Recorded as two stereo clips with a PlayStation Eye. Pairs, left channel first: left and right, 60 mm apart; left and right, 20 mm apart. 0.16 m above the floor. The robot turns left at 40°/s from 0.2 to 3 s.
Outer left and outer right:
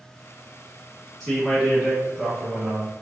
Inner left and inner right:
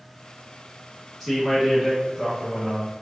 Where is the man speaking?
5° left (ahead or behind), 1.1 m; by 2.9 s 15° right (ahead or behind), 1.1 m.